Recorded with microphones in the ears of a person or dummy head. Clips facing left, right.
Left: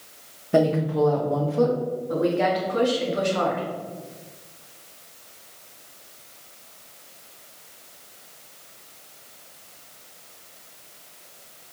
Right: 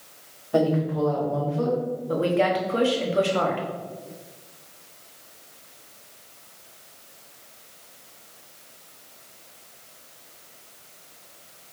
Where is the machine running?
I don't hear a machine running.